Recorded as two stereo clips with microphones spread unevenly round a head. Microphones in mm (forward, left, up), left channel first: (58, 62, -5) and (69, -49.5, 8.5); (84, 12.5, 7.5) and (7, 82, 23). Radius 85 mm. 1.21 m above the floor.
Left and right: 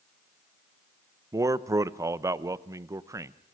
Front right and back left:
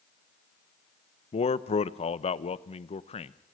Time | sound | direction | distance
1.3 | a man speaking | 20° right | 0.8 m